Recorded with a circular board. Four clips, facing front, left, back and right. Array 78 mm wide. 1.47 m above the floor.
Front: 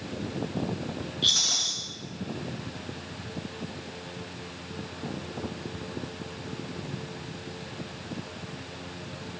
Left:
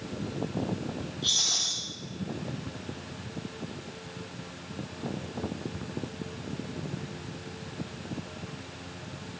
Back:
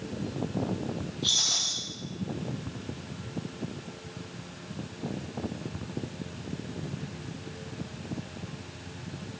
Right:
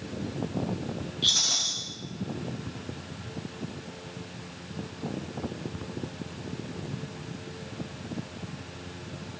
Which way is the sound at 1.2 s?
35° right.